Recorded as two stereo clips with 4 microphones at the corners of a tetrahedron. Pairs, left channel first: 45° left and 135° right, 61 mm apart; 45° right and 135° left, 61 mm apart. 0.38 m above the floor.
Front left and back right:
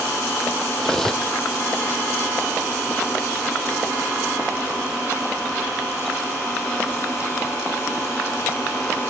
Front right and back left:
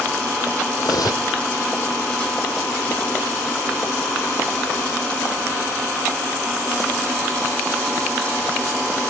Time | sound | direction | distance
0.8 | cutlery clinking | 35° right | ?